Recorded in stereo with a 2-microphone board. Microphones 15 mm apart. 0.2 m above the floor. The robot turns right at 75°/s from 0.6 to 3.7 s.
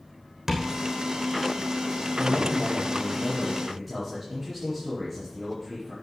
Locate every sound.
0.5 s tapping: 35° right (ahead or behind), 3 m; by 0.7 s 40° right (ahead or behind), 3 m
2.1 s a man speaking: 65° left, 4.5 m; by 5.9 s straight behind, 4.5 m